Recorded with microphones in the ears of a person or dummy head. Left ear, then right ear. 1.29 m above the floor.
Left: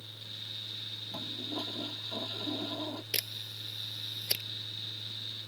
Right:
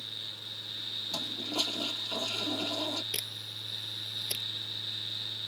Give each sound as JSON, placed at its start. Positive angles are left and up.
{"t": 1.1, "sound": "a toilet flushing", "side_deg": -70}
{"t": 3.1, "sound": "a camera shutter", "side_deg": 10}